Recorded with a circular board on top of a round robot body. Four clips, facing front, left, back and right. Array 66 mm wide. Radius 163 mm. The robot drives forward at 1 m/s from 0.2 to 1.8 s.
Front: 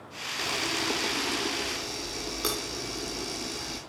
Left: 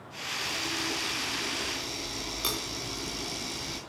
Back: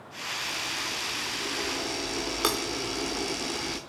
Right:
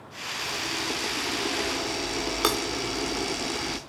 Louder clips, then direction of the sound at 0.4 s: Right 2 dB, front 5 dB; 20° right.